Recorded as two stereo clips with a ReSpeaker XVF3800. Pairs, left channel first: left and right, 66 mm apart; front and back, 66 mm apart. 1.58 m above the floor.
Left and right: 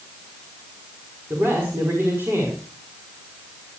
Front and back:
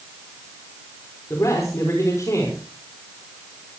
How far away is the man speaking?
About 6 m.